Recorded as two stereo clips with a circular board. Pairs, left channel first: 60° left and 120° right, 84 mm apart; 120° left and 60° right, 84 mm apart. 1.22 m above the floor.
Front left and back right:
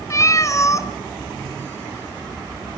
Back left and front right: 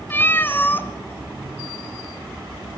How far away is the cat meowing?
About 1.3 m.